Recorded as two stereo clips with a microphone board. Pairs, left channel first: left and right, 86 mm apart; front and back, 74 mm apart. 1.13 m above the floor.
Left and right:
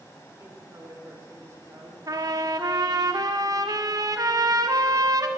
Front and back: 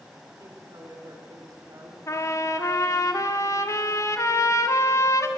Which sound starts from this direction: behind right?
A woman speaking, at 0.4 s.